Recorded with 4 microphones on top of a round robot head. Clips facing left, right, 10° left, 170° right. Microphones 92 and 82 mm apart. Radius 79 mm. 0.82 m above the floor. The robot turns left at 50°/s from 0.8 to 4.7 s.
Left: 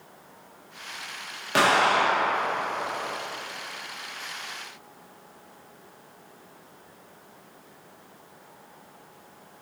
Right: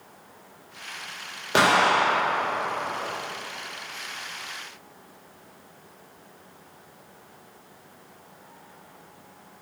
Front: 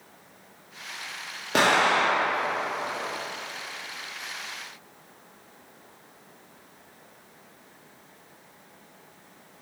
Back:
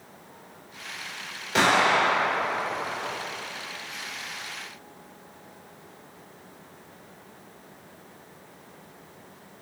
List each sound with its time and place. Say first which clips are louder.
1.5 s an explosion: right 1 dB, even; 25° right, 1.9 m; by 2.5 s 75° right, 1.9 m